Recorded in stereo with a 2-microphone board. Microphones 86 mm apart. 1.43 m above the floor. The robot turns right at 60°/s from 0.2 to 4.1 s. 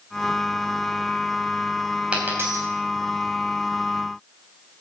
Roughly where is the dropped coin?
Centre.